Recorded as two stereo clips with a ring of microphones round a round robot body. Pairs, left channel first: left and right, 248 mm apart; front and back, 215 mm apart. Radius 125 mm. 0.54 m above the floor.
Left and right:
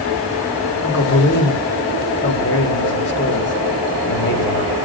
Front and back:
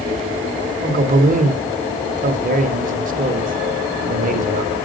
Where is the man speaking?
130° left, 1.8 m.